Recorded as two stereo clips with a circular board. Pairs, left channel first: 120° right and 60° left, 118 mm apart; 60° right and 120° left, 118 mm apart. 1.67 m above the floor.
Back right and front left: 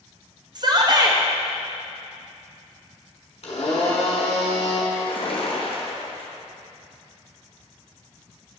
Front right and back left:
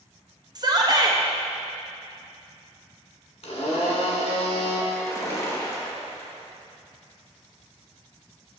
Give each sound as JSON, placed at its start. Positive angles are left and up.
{"t": 0.6, "sound": "a shout", "azimuth_deg": 90, "distance_m": 0.6}
{"t": 3.4, "sound": "a blender", "azimuth_deg": -90, "distance_m": 1.3}
{"t": 4.9, "sound": "a splash", "azimuth_deg": -115, "distance_m": 1.0}